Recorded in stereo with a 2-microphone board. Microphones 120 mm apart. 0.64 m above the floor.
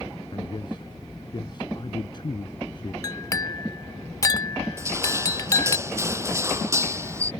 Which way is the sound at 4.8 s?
25° right (ahead or behind).